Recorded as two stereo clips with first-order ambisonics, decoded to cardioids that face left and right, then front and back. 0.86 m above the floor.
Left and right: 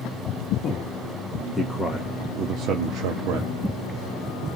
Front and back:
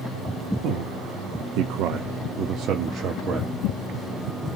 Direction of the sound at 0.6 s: 145° left.